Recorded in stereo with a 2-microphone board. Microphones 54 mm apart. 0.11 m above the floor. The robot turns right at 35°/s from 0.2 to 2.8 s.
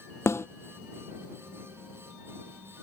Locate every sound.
0.3 s a snare drum: 60° left (ahead or behind); by 0.5 s 55° left (ahead or behind)